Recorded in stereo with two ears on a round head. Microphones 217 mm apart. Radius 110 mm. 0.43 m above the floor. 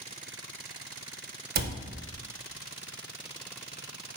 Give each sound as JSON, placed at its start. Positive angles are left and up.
{"t": 1.6, "sound": "a cupboard door", "side_deg": -40, "distance_m": 0.9}